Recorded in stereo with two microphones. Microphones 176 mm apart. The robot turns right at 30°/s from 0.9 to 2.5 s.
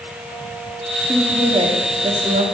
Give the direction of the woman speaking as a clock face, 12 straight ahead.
5 o'clock.